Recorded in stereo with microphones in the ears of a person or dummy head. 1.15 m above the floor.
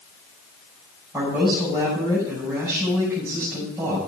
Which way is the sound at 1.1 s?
15° right (ahead or behind).